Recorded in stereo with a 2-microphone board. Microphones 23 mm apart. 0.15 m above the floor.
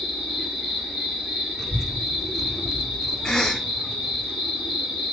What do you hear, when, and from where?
0.0 s an insect: 40° right (ahead or behind), 1.5 m
1.6 s a child speaking: 10° left (ahead or behind), 0.6 m
3.2 s a cough: 25° left (ahead or behind), 1.7 m